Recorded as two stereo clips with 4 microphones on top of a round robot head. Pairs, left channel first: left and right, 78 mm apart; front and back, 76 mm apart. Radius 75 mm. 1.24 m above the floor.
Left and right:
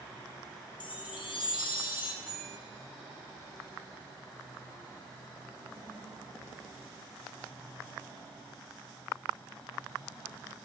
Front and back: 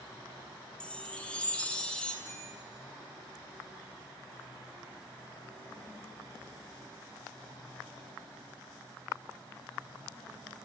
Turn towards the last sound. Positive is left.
turn(degrees=145)